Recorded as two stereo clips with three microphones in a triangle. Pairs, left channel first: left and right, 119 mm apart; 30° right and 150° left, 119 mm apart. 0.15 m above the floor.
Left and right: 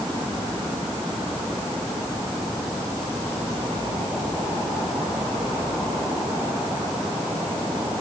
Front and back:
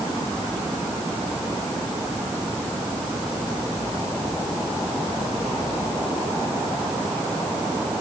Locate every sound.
Only background noise.